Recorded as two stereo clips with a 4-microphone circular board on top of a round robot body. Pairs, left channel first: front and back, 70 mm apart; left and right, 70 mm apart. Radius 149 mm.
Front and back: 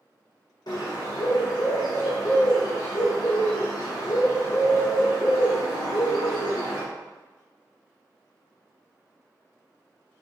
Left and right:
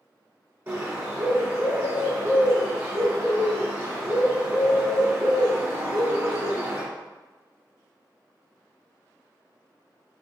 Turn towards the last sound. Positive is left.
turn(degrees=-30)